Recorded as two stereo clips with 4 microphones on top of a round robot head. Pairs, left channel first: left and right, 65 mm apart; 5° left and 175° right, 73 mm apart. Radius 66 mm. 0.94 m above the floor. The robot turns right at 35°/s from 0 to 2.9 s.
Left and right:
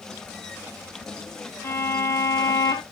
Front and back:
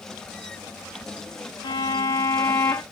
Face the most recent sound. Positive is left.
turn(degrees=85)